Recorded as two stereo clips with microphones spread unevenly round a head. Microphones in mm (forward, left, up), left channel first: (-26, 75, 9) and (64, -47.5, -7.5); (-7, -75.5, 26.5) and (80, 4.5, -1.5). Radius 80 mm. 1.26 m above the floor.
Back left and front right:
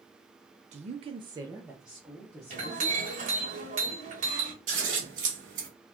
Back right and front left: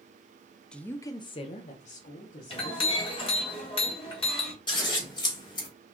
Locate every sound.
0.7 s a woman speaking: 45° right, 0.6 m; by 3.0 s 155° right, 1.3 m
2.5 s a clink: 100° right, 1.7 m
4.7 s scissors: 100° right, 1.5 m